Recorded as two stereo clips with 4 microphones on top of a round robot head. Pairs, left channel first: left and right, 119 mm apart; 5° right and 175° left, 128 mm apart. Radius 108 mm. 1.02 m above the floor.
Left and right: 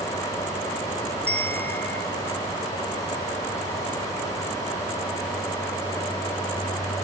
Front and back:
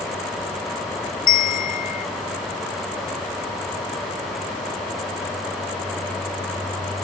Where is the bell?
10° left, 0.6 m.